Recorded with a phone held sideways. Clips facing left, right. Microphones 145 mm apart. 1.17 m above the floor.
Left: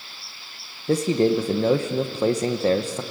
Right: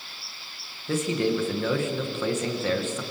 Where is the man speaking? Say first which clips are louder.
Left 5 dB; 35° left (ahead or behind), 1.1 m.